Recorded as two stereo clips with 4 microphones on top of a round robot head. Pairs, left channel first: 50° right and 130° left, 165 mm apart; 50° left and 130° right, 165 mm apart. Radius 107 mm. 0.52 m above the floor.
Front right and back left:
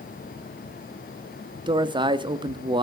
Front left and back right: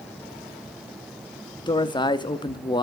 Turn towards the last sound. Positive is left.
turn(degrees=95)